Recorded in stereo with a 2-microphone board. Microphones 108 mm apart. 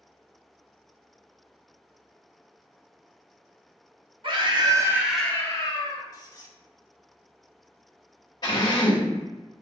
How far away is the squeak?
About 0.7 m.